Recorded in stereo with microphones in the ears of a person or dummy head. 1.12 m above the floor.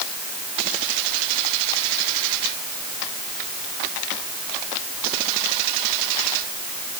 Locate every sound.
Only background noise.